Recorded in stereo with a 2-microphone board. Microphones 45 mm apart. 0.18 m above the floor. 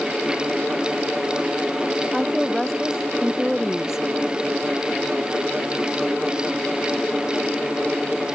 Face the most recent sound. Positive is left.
turn(degrees=-10)  # may be behind; listen again after turning